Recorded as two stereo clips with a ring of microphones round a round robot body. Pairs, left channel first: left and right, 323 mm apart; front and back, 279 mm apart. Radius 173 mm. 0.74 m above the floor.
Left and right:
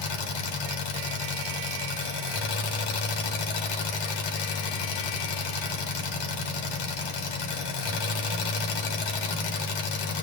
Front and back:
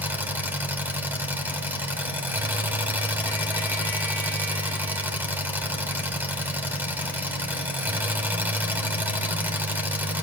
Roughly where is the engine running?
Left.